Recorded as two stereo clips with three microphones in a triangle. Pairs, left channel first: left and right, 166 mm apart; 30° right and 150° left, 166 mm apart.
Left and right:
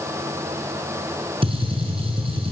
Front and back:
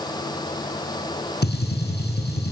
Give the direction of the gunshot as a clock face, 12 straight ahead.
1 o'clock.